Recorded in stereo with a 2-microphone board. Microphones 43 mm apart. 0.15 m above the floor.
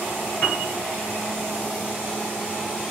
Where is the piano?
50° left (ahead or behind), 2.5 m.